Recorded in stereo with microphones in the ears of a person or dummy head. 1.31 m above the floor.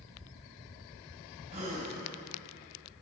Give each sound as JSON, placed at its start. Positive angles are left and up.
{"t": 1.5, "sound": "a gasp", "side_deg": -35, "distance_m": 3.5}